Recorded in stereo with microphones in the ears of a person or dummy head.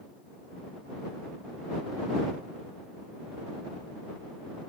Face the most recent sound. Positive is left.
No sound to turn to.